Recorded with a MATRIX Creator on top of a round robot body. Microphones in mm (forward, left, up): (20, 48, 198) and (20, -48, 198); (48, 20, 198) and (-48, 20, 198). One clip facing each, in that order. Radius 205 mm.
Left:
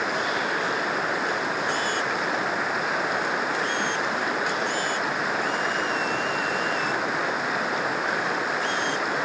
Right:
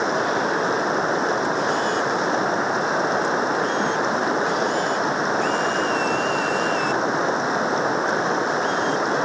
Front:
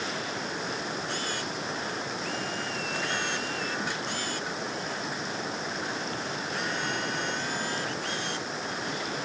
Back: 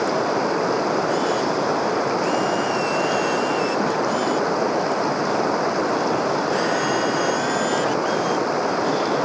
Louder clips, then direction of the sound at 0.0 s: Right 5 dB, back 14 dB; 155° right.